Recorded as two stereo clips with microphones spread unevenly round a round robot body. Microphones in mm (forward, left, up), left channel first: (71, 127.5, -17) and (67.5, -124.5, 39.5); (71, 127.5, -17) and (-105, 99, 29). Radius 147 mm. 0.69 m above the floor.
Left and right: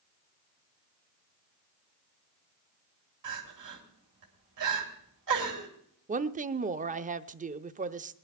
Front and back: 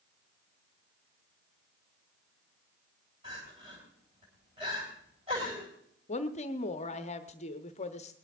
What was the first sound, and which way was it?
Crying, 95° right.